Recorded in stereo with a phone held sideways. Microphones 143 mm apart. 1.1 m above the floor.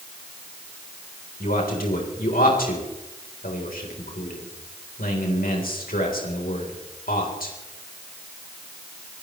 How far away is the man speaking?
About 4 m.